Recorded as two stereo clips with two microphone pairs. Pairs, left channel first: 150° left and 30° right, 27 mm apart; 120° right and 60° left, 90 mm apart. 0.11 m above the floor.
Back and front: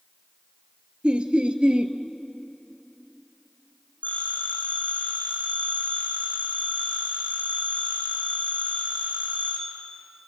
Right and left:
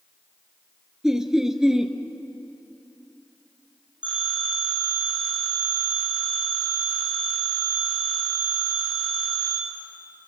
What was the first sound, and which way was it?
Laughter, 15° right.